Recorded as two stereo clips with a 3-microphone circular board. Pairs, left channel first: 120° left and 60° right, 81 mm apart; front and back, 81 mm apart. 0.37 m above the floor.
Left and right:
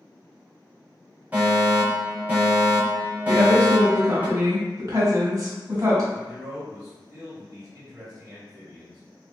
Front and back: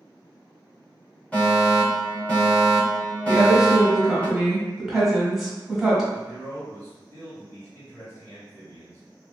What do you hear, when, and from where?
1.3 s a fire alarm: 35° right, 1.8 m
3.3 s a woman speaking: 95° right, 1.6 m
6.1 s a man speaking: 40° right, 1.8 m